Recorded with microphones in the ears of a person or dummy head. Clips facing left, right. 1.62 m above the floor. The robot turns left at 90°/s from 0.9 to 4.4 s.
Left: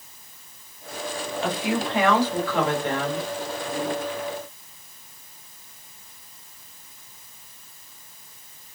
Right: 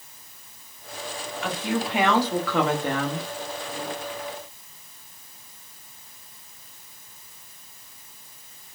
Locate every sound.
1.4 s a woman speaking: 35° left, 0.9 m; by 3.3 s 130° right, 0.9 m